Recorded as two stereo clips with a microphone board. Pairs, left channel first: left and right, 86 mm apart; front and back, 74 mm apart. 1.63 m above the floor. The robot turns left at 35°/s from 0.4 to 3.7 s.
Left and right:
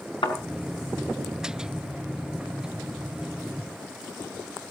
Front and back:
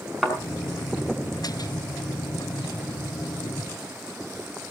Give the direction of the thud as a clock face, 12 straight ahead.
9 o'clock.